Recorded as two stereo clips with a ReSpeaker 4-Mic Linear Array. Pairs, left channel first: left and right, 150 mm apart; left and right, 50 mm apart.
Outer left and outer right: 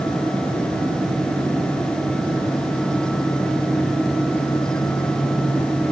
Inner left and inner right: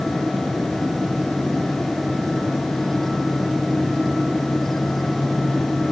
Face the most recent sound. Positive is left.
No sound to turn to.